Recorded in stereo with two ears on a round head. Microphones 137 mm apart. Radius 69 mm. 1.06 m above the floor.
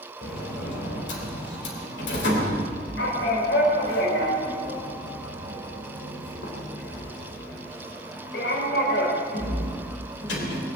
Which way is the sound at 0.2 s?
75° left (ahead or behind).